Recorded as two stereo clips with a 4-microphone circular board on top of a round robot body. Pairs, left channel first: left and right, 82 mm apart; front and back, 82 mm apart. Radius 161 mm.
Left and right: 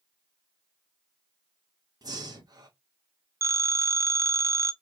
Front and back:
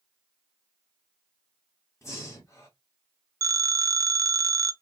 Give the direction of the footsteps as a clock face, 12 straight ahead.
No footsteps in this recording.